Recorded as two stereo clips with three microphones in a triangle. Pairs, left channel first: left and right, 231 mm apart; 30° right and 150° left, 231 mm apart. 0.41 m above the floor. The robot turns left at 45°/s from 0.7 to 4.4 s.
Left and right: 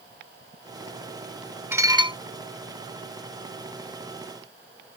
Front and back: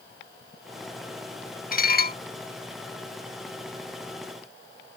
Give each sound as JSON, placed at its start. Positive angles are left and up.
{"t": 1.7, "sound": "dishes clattering", "azimuth_deg": -10}